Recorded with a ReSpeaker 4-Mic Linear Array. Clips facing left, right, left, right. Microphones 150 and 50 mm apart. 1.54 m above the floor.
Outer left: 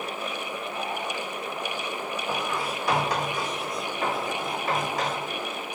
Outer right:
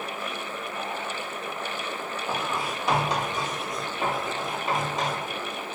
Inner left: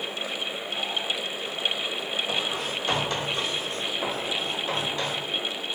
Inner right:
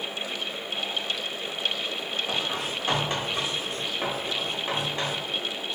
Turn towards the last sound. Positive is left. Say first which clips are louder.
# outer right 1 dB, inner left 1 dB
turn(degrees=-25)  # may be behind; listen again after turning